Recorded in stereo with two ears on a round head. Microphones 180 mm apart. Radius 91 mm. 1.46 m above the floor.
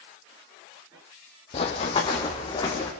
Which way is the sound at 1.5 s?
30° left (ahead or behind).